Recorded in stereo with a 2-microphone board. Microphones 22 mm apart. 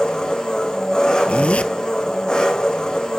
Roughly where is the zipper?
Left.